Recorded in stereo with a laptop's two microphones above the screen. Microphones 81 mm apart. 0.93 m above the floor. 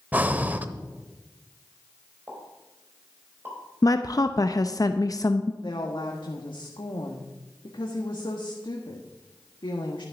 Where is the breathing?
20° right (ahead or behind), 0.7 m.